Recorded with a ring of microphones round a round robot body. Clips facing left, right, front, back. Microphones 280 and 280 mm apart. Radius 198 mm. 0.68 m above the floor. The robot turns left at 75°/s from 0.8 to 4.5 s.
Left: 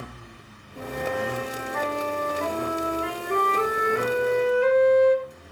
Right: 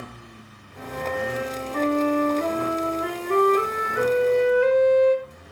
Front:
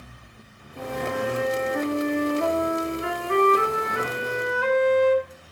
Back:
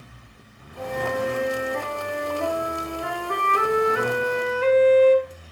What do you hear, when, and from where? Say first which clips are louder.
0.8 s a flute: even, back 2 dB; 35° left, 2.5 m; by 5.5 s 120° left, 2.5 m